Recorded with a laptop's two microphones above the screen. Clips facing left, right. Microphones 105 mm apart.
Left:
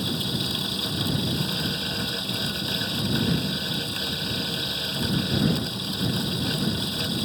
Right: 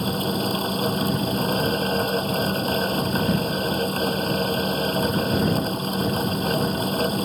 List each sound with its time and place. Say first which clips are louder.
0.0 s a fan: right 6 dB; 45° right (ahead or behind)